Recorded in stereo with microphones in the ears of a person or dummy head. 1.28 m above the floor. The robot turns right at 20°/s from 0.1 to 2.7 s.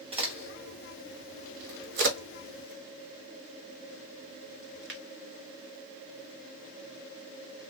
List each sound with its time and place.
0.1 s a crack: 25° right (ahead or behind), 0.9 m; by 5.0 s 55° right (ahead or behind), 0.9 m